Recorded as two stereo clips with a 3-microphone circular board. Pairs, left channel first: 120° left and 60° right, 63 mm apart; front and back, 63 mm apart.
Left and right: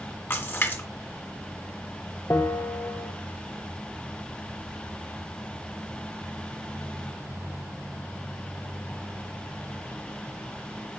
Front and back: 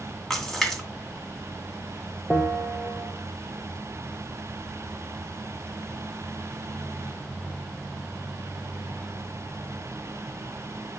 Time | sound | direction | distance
0.3 | a splash | 75° left | 2 m
2.3 | a bell | 75° left | 1.1 m